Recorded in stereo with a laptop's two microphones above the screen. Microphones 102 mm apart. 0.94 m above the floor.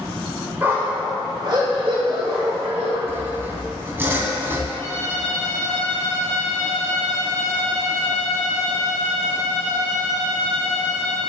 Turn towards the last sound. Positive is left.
turn(degrees=25)  # may be behind; listen again after turning